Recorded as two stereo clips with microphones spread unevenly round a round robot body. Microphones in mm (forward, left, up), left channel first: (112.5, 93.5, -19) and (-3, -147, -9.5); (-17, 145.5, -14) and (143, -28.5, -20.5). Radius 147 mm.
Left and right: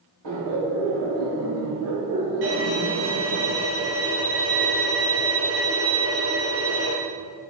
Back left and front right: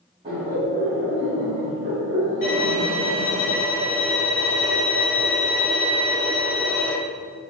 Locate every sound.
0.2 s laughter: 115° right, 3 m; by 3.4 s 80° right, 2.0 m
2.4 s a violin: 165° right, 2.5 m